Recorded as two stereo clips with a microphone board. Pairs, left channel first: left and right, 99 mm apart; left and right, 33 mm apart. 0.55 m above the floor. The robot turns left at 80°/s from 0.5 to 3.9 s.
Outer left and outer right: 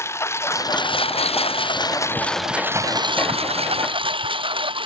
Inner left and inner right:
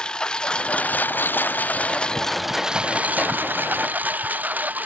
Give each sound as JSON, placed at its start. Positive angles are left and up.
{"t": 0.0, "sound": "a lawn mower", "azimuth_deg": 155}